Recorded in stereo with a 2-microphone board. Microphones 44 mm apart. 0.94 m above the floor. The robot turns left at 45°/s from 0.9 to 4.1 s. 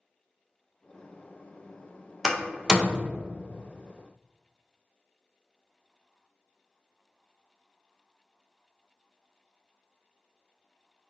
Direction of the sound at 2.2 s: 5° right (ahead or behind).